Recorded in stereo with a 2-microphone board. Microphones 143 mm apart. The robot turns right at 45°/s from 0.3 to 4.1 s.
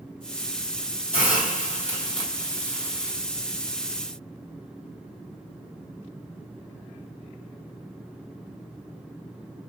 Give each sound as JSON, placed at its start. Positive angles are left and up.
{"t": 1.1, "sound": "a hiss", "azimuth_deg": 95, "distance_m": 2.0}